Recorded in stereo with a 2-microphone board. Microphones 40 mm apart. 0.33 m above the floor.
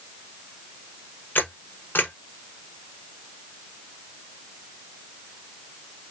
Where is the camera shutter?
65° left (ahead or behind), 1.2 m.